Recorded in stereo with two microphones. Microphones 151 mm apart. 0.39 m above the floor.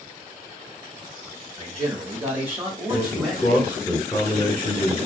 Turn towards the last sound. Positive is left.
turn(degrees=15)  # may be behind; listen again after turning